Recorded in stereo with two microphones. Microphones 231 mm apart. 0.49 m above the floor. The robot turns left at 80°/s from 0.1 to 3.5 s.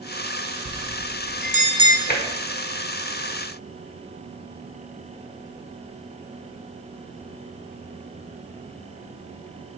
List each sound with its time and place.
0.7 s a bell: 40° right (ahead or behind), 0.5 m; by 2.0 s 10° right (ahead or behind), 0.5 m
2.1 s tapping: 40° left (ahead or behind), 1.0 m; by 2.2 s 35° left (ahead or behind), 1.0 m